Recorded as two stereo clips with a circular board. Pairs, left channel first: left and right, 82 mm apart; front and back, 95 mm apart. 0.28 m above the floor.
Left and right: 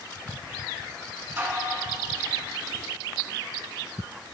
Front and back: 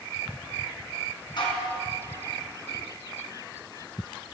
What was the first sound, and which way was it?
Dishes clattering, 30° right.